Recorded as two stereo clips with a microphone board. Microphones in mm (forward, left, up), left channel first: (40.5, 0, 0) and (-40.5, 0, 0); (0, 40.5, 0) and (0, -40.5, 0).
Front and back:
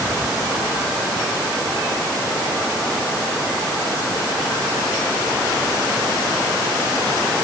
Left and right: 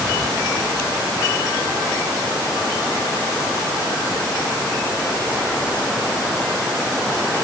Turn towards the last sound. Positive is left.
No sound to turn to.